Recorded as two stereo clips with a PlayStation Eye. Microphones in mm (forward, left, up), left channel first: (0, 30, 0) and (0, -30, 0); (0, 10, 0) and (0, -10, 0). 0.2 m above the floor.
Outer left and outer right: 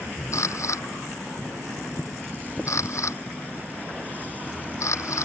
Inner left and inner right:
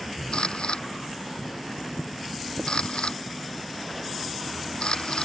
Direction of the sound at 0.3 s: 55° left (ahead or behind).